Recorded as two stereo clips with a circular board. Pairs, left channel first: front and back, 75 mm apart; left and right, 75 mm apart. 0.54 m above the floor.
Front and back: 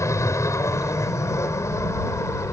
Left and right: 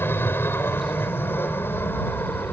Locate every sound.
0.0 s an aircraft: 35° left